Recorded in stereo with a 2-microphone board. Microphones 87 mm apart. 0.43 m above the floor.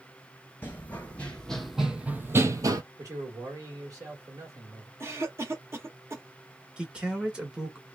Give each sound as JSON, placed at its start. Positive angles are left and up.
{"t": 0.6, "sound": "running footsteps", "side_deg": 20, "distance_m": 1.0}
{"t": 3.0, "sound": "a man speaking", "side_deg": -40, "distance_m": 1.5}
{"t": 5.0, "sound": "a cough", "side_deg": -30, "distance_m": 0.9}
{"t": 6.8, "sound": "a man speaking", "side_deg": -10, "distance_m": 1.1}